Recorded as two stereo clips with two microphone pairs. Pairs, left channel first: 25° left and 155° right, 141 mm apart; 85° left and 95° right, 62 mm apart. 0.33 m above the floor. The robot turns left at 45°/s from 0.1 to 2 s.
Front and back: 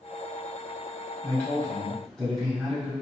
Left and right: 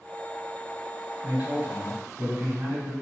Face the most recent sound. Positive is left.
turn(degrees=-65)